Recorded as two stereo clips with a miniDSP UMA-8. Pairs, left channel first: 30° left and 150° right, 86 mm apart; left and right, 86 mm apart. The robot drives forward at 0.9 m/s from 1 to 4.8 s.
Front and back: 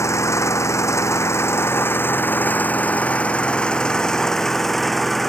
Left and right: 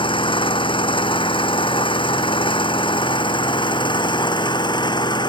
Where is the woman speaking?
I don't hear a woman speaking.